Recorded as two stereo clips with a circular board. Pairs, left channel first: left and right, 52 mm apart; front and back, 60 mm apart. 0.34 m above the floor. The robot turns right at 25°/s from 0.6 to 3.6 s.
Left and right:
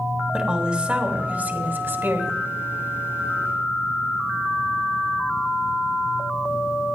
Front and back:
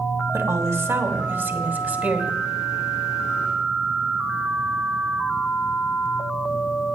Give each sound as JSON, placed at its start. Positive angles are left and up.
{"t": 0.3, "sound": "a woman speaking", "azimuth_deg": -160, "distance_m": 2.5}